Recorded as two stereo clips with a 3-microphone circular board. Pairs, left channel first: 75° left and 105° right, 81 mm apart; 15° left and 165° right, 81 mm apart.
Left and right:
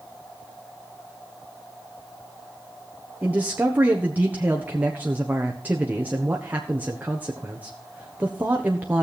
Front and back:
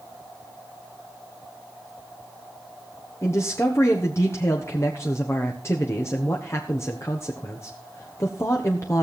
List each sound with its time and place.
3.2 s a man speaking: 35° right, 1.4 m